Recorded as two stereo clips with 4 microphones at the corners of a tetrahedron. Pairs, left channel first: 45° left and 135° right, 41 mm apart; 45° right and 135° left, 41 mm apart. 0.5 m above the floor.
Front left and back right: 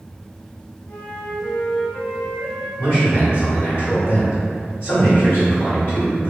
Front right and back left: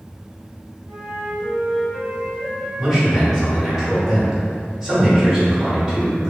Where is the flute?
60° left, 1.7 m.